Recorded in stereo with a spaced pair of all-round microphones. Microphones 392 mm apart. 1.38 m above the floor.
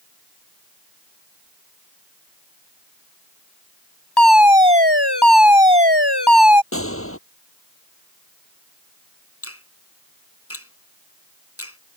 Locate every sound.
4.2 s a fire alarm: 80° left
6.7 s a gunshot: 35° left (ahead or behind)
9.4 s a finger snap: 35° left (ahead or behind)